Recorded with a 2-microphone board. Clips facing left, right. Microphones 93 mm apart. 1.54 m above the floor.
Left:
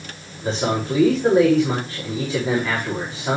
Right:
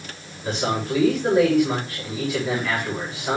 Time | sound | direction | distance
0.4 | a man speaking | 25° left (ahead or behind) | 6.5 m